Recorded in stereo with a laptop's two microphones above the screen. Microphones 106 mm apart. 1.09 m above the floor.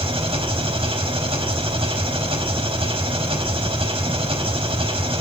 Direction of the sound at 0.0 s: 65° right (ahead or behind).